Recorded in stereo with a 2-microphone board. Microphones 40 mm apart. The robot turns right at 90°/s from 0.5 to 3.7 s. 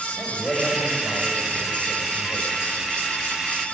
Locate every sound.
0.2 s a man speaking: 25° left, 5.5 m; by 2.8 s 135° right, 5.5 m